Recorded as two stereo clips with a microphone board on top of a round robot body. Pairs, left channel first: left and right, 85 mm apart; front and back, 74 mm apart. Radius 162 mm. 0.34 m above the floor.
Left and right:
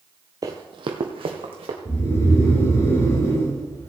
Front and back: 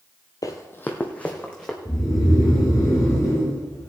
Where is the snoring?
35° left, 5.5 m.